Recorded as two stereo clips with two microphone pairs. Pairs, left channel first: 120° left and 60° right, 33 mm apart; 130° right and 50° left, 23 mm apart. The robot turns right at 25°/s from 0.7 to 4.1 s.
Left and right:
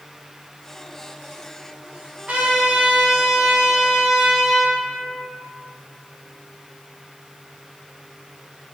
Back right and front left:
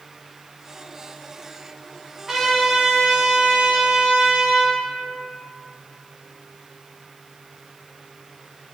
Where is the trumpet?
25° right, 0.8 m; by 4.8 s 20° left, 0.8 m.